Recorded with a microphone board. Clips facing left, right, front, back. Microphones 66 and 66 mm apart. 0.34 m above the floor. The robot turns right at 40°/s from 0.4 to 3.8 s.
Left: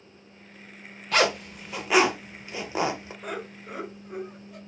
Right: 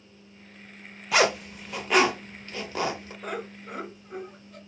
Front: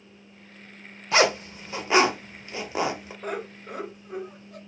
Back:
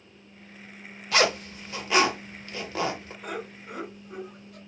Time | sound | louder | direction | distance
1.1 | a zipper | right 1 dB, front 3 dB | 20° right | 0.5 m
3.2 | laughter | right 2 dB, front 4 dB | 5° left | 1.3 m